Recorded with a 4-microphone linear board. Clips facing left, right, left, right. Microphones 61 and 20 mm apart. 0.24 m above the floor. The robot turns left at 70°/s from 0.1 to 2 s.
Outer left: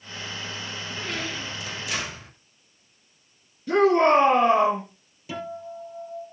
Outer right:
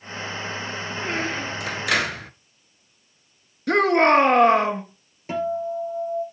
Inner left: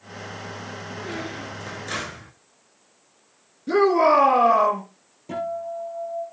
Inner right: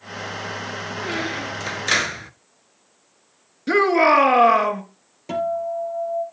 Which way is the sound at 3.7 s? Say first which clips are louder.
Outer right 1 dB, inner right 1 dB; 70° right (ahead or behind).